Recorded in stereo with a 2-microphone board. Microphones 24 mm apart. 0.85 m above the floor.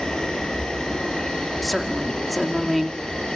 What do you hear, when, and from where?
0.0 s an insect: 40° left (ahead or behind), 9 m
1.6 s a woman speaking: 5° right (ahead or behind), 2.5 m